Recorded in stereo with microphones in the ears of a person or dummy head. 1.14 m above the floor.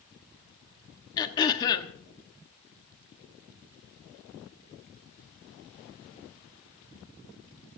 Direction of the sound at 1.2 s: 25° left (ahead or behind).